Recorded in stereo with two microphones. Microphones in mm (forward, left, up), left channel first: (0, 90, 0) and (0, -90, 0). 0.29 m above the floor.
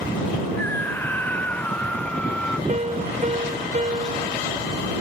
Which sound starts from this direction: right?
A piano, at 2.7 s.